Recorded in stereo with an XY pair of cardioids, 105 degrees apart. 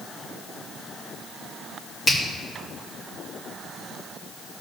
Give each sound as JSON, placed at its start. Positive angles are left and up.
{"t": 2.1, "sound": "a finger snap", "azimuth_deg": 35, "distance_m": 1.9}